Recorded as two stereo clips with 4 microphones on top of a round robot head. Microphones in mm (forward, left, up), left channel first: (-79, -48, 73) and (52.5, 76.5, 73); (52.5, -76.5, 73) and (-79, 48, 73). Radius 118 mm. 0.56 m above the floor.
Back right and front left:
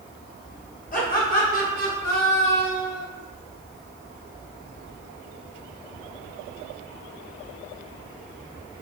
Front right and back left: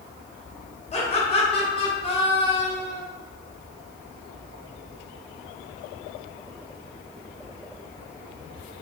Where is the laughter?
95° right, 2.5 m; by 3.0 s 105° right, 3.5 m.